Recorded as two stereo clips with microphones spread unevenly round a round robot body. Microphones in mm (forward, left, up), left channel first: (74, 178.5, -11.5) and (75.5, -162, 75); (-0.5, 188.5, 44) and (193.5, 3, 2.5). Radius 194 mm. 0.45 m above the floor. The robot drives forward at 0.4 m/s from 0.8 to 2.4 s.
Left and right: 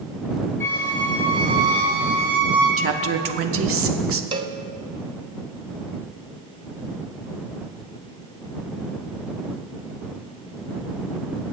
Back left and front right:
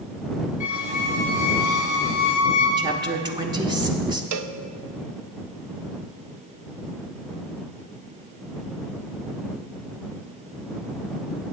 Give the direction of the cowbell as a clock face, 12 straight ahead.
1 o'clock.